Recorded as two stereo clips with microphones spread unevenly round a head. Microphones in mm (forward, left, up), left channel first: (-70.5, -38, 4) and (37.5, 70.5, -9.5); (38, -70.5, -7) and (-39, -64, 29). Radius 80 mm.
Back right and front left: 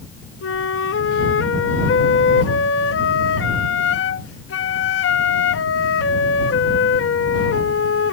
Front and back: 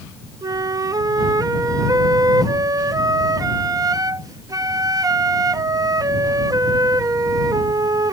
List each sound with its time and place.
0.4 s a flute: 135° right